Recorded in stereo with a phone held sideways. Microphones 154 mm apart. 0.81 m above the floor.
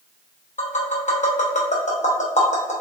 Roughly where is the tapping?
Left.